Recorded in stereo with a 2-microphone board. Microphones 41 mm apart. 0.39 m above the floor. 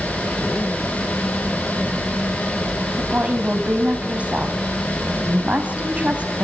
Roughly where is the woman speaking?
Right.